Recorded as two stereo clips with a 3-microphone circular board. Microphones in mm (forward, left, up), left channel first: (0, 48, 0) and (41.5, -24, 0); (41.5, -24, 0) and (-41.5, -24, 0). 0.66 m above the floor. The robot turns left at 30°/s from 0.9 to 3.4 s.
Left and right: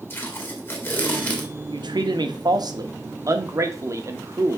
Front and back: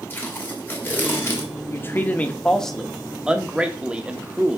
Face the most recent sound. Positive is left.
turn(degrees=-105)